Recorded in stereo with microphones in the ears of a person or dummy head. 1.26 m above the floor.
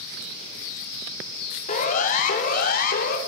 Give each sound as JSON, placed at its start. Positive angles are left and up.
{"t": 1.7, "sound": "a siren", "side_deg": 45, "distance_m": 4.5}